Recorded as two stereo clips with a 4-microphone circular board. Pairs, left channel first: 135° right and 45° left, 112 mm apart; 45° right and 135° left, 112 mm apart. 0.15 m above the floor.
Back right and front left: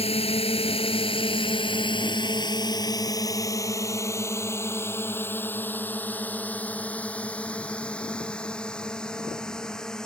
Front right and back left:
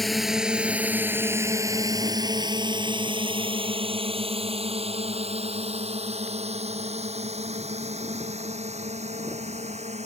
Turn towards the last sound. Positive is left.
turn(degrees=140)